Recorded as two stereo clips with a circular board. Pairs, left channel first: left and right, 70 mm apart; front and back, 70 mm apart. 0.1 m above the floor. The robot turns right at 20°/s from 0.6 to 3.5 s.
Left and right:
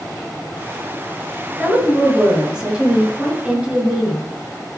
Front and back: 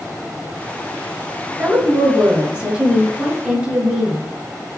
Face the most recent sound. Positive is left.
turn(degrees=-125)